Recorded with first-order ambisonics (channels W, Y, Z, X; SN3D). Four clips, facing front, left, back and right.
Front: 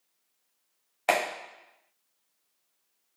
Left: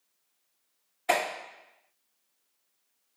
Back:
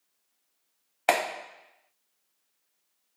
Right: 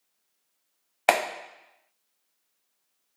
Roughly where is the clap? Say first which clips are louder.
Right 4 dB, back 1 dB; right.